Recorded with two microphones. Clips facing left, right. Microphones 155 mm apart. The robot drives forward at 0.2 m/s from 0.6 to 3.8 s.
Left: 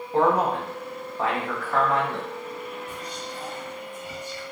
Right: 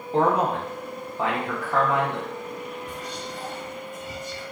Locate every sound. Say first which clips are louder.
0.1 s a man speaking: even; 25° right (ahead or behind), 0.7 m; by 2.3 s 15° right (ahead or behind), 1.0 m
2.9 s whispering: right 1 dB; 70° right (ahead or behind), 0.9 m; by 4.4 s 80° right, 0.8 m